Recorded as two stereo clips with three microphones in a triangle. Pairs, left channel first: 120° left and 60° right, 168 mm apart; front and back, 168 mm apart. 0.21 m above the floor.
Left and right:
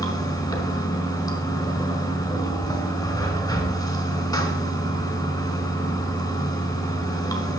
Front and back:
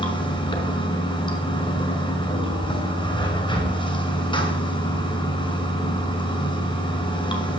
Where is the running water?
55° left, 1.8 m.